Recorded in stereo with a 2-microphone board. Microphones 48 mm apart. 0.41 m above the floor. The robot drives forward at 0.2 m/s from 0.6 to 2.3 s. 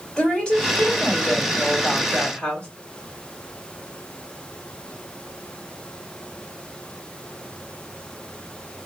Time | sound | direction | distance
0.2 | a woman speaking | 20° left (ahead or behind) | 1.9 m